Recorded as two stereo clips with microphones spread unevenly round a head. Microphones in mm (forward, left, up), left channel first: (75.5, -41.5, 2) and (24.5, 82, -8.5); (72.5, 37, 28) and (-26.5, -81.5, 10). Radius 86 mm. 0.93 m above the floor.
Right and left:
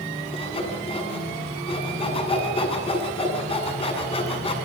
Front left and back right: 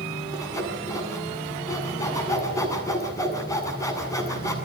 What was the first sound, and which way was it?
Sawing, 20° right.